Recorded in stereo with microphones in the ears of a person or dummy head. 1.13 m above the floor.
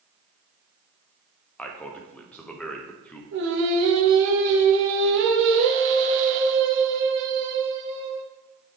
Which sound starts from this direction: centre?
A man speaking, at 1.6 s.